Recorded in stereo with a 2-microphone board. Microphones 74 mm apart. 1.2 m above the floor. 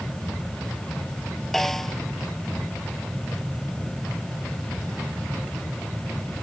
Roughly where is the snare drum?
Centre.